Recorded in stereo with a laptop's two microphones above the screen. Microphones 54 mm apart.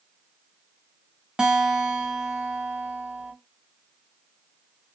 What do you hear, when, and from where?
1.4 s a guitar: 15° right (ahead or behind), 0.6 m